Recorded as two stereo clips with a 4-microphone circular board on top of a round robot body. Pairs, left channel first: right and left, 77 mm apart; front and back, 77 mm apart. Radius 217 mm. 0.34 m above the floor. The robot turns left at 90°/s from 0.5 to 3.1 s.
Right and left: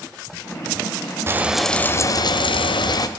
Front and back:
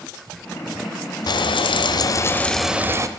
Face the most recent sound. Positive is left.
turn(degrees=-135)